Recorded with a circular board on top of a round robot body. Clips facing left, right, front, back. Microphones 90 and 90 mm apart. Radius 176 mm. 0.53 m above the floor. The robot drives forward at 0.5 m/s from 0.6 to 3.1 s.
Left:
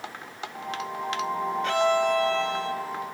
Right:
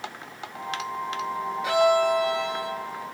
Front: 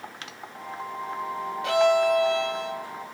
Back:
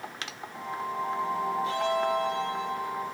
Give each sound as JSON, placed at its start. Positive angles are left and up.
{"t": 1.6, "sound": "a violin", "azimuth_deg": -10, "distance_m": 1.7}